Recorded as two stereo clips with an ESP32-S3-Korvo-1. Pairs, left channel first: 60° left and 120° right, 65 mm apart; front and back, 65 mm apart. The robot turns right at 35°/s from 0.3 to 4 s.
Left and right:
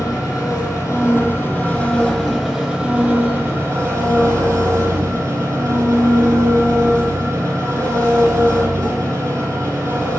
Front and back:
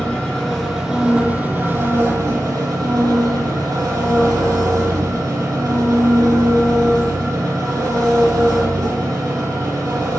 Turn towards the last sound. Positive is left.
turn(degrees=-160)